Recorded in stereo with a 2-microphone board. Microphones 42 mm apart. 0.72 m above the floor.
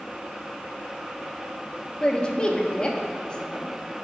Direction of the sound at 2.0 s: 20° left (ahead or behind).